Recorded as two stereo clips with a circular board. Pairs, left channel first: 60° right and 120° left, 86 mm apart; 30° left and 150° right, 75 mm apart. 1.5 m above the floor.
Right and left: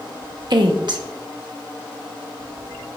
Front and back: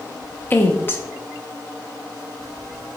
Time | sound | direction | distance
0.5 | a woman speaking | 90° left | 1.1 m